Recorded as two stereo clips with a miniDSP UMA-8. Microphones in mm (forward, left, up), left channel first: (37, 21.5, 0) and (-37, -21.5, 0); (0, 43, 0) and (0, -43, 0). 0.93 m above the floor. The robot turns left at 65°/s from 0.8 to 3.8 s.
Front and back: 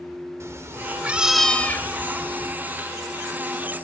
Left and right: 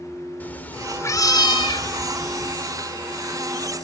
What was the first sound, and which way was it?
A cat meowing, 160° left.